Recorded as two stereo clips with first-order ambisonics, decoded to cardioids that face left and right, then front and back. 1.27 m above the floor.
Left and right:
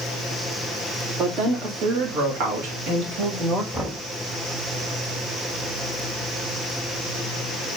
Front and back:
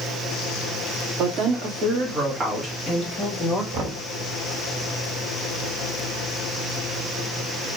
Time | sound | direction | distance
1.2 | a woman speaking | 140° right | 2.5 m
3.7 | knocking | 155° right | 2 m